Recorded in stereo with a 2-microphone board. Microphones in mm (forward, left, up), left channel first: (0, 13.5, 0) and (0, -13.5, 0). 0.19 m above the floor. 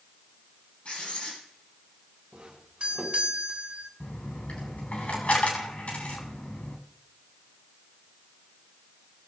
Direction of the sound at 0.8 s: 55° left (ahead or behind).